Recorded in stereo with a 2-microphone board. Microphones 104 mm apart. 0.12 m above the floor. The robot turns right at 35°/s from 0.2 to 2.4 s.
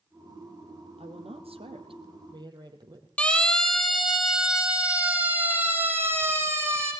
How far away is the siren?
About 4 m.